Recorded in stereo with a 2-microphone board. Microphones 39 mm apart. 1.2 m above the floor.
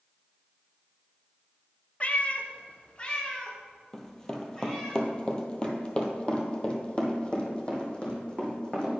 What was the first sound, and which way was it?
A cat meowing, 35° left (ahead or behind).